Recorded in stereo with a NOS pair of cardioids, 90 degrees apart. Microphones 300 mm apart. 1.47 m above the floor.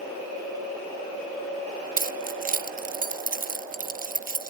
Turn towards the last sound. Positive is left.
turn(degrees=-30)